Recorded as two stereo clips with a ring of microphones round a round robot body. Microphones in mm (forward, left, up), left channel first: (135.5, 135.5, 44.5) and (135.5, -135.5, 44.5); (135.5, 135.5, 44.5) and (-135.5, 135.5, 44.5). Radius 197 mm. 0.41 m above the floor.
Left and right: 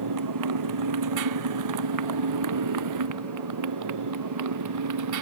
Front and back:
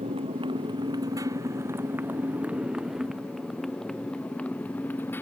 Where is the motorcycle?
105° right; by 5.2 s 85° right.